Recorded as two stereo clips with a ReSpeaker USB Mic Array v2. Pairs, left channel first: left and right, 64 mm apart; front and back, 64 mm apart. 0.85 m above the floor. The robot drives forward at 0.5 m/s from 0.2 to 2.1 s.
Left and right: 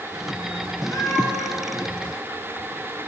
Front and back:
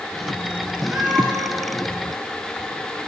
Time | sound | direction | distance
0.9 | a cat meowing | 110° left | 8.5 m